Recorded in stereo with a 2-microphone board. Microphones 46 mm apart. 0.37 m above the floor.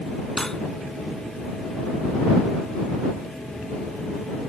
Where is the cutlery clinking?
10° left (ahead or behind).